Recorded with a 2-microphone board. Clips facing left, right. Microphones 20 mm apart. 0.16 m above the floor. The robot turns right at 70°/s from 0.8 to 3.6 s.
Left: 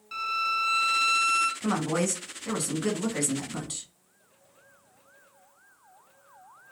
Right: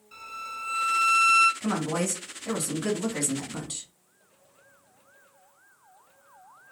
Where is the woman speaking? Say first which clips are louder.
Left 1 dB; 15° left (ahead or behind), 1.0 m; by 3.9 s centre (ahead or behind), 1.0 m.